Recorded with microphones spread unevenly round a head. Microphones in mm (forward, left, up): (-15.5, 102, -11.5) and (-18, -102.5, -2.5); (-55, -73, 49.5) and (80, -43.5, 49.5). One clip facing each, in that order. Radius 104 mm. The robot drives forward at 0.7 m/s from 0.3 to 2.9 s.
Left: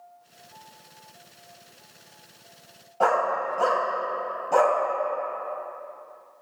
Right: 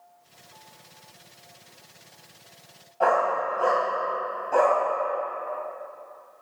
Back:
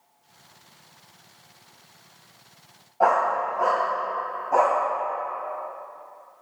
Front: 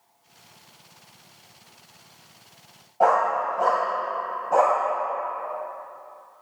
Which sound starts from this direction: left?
A dog barking, at 3.0 s.